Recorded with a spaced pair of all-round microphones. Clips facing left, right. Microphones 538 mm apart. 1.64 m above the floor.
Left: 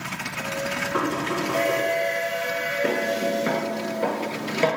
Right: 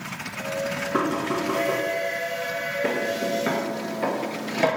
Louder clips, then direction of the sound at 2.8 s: Left 1 dB; 5° right (ahead or behind).